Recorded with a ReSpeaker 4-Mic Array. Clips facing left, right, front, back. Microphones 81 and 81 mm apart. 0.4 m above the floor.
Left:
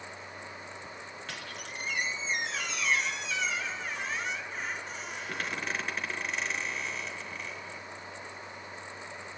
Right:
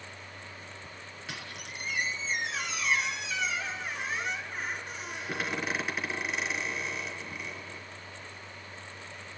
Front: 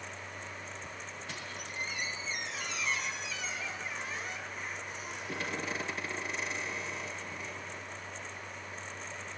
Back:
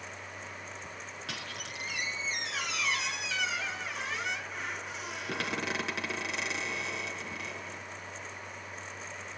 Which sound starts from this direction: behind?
A squeak, at 1.3 s.